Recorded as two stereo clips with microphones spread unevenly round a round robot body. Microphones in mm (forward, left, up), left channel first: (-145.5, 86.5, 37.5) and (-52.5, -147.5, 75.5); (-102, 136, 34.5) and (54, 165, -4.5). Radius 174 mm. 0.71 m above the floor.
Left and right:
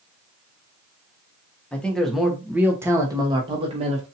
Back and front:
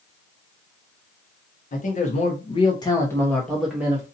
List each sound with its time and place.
1.7 s a man speaking: straight behind, 1.3 m; by 4.1 s 15° right, 1.2 m